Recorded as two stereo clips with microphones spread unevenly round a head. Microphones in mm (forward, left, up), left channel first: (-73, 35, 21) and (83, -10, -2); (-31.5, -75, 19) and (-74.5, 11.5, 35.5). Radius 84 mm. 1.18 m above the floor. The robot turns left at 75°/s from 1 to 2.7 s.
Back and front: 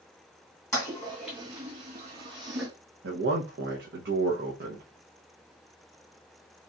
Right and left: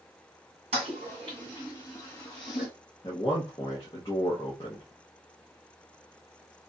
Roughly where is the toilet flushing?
Left.